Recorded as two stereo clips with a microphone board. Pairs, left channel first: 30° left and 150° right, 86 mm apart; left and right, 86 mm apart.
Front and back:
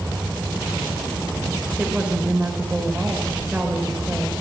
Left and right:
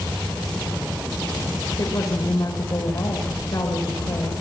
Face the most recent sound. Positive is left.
turn(degrees=135)